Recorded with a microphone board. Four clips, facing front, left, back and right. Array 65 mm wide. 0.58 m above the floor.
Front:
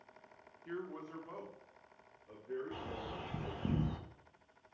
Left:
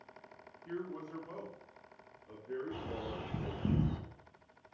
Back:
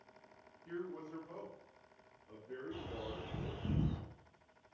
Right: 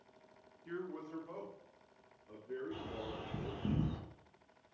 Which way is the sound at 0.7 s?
20° right.